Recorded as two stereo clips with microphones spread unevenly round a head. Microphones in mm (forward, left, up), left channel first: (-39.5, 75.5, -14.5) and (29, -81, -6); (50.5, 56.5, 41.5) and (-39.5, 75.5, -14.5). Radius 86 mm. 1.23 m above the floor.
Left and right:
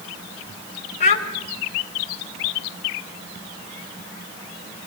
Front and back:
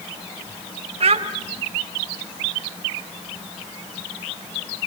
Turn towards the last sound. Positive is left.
turn(degrees=150)